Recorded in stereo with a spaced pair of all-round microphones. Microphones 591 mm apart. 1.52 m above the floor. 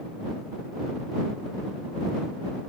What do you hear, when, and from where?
Only background noise.